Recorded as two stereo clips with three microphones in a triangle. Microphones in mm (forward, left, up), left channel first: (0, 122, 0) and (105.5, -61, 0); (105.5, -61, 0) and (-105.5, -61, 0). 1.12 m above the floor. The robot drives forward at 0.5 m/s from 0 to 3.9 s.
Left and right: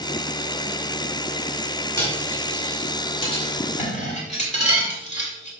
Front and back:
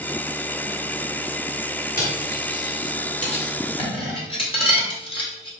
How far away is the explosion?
No explosion in this recording.